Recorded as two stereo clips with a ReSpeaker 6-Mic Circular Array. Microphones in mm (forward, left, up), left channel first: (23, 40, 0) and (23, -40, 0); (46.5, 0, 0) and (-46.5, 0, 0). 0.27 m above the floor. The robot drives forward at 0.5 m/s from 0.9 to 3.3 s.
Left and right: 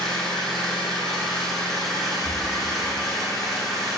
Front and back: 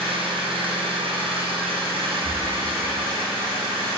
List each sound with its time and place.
0.0 s an engine running: 175° left, 3 m; by 4.0 s straight behind, 4.5 m
2.2 s breathing: 125° right, 2 m; by 2.5 s 130° right, 2 m